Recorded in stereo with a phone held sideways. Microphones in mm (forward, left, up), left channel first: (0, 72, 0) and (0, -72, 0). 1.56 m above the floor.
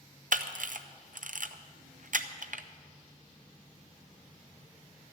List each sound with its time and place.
0.3 s a camera shutter: 65° right (ahead or behind), 0.6 m